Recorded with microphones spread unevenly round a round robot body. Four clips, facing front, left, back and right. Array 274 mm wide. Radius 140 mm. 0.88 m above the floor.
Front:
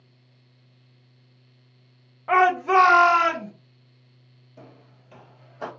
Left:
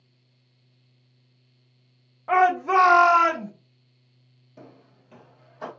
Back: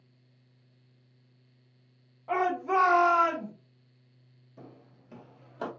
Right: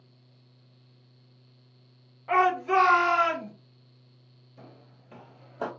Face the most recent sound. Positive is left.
turn(degrees=-125)